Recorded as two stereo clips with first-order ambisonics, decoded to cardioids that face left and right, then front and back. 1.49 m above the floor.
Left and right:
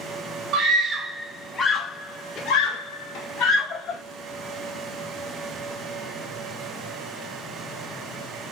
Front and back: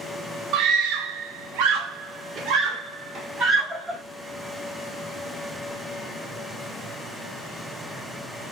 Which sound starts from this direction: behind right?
A scream, at 0.5 s.